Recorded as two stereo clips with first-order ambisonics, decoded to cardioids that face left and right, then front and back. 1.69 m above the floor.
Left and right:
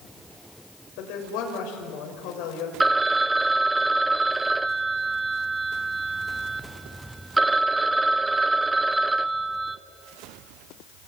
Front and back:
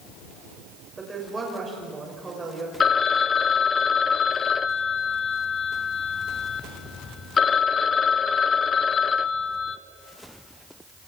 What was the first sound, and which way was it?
A woman speaking, 105° left.